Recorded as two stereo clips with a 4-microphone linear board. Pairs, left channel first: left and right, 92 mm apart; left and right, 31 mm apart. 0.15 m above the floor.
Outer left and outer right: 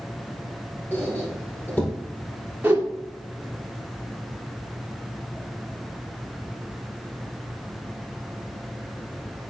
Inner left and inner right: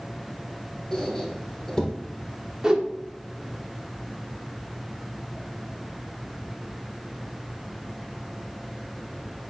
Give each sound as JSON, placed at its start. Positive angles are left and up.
{"t": 0.9, "sound": "a squeak", "side_deg": 15, "distance_m": 3.5}
{"t": 2.6, "sound": "a whoosh", "side_deg": -20, "distance_m": 2.0}